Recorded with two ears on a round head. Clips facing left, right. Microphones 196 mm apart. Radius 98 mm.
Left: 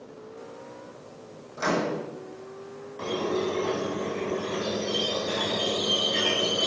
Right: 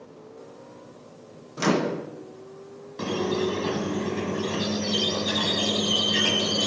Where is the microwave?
45° right (ahead or behind), 0.9 m.